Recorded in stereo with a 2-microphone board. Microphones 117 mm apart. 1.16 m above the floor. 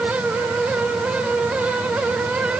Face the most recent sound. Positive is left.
No sound to turn to.